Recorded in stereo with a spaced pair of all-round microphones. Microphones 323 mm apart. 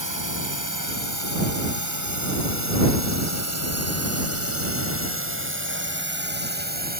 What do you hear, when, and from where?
0.0 s a drone: 75° right (ahead or behind); by 7.0 s 30° right (ahead or behind)